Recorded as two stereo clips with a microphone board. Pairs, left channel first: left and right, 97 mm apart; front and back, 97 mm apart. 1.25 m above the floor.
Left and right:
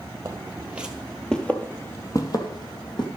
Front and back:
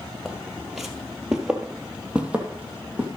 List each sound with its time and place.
0.2 s footsteps: 90° right, 1.4 m; by 3.1 s 105° left, 2 m